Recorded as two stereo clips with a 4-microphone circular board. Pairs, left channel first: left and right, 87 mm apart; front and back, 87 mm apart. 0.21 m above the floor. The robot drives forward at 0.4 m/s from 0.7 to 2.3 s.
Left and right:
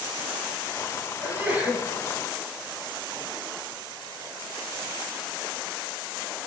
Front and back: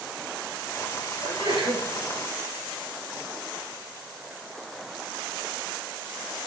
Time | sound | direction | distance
1.2 | a sneeze | 160° right | 4.5 m